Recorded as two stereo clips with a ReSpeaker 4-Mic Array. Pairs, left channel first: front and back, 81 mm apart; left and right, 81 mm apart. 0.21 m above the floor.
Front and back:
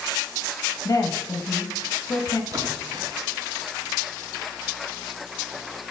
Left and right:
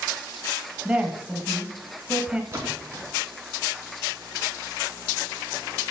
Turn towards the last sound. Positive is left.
turn(degrees=-145)